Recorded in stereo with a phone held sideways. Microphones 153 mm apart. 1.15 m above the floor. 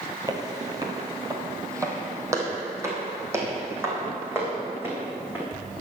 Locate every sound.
0.3 s footsteps: 25° right (ahead or behind), 1.4 m; by 5.5 s 15° right (ahead or behind), 4 m